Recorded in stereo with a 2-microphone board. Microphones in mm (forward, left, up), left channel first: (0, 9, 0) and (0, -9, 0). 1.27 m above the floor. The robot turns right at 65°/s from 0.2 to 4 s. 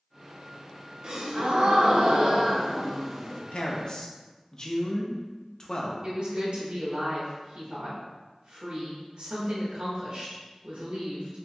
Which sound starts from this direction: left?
A man speaking, at 3.5 s.